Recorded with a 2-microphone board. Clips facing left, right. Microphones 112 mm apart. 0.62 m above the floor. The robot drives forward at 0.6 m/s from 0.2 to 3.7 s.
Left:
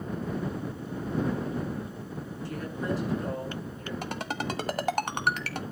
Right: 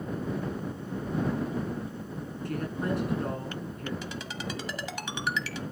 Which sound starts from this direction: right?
A woman speaking, at 2.5 s.